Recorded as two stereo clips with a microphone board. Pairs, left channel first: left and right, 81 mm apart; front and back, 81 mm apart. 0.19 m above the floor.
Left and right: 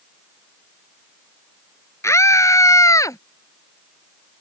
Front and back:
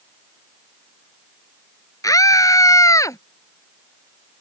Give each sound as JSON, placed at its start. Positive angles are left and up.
{"t": 2.0, "sound": "a scream", "azimuth_deg": 40}